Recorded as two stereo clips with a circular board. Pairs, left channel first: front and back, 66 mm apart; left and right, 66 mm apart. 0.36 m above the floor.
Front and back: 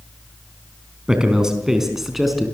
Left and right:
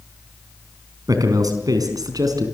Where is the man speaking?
105° right, 4 m; by 2.5 s 90° right, 4.5 m.